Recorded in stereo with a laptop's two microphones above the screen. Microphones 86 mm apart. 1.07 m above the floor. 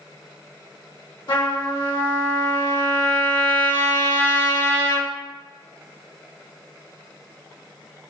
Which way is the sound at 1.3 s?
80° left.